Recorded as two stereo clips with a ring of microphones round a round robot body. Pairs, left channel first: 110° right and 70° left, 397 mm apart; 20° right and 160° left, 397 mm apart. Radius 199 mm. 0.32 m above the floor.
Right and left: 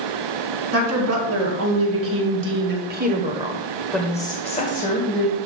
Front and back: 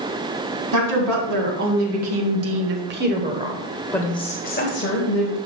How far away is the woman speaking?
About 3 m.